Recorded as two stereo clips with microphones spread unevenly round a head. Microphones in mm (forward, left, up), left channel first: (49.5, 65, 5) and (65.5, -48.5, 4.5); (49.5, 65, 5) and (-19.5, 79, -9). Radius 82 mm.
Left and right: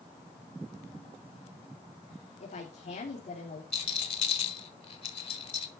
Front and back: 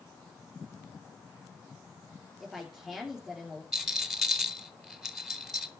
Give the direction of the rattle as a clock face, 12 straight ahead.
9 o'clock.